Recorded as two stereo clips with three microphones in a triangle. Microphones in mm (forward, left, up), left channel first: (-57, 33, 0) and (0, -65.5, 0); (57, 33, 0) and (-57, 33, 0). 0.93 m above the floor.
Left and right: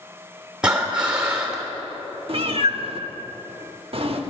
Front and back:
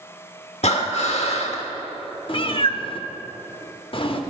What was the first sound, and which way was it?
Breathing, 20° left.